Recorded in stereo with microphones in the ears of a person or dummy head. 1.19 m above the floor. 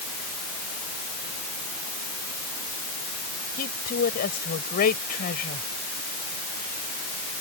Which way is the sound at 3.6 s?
50° left (ahead or behind).